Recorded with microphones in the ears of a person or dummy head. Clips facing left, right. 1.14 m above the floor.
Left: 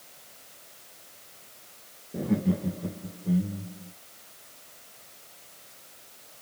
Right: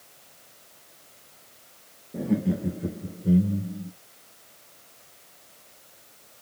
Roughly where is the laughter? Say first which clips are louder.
Right 1 dB; centre.